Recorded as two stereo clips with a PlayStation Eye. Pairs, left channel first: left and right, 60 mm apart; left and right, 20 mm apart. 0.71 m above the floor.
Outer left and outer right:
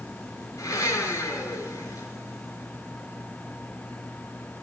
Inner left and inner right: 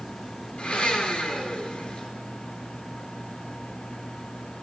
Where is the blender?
80° left, 6 m.